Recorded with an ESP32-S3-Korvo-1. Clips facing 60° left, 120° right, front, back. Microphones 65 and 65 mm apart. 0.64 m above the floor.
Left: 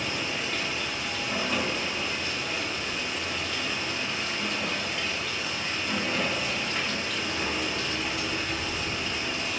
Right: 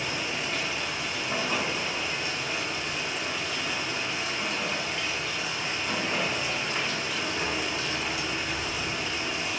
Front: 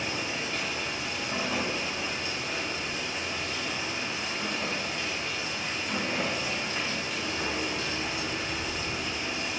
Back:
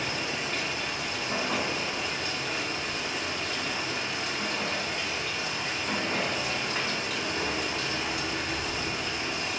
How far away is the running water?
About 0.7 m.